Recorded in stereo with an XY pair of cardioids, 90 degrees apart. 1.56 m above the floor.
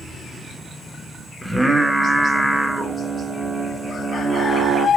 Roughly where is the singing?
Ahead.